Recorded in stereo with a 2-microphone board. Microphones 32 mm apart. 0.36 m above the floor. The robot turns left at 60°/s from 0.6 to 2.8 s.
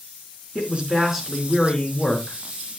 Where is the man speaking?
140° right, 4.5 m; by 2.4 s 115° left, 4.5 m.